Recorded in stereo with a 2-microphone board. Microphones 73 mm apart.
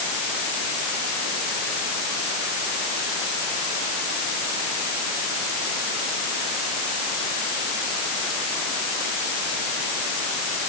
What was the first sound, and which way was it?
Only background noise.